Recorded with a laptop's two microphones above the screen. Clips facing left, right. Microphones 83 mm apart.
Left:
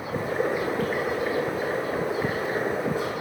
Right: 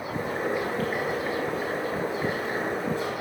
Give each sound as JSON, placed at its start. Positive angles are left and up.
{"t": 0.1, "sound": "boiling", "side_deg": 10, "distance_m": 2.5}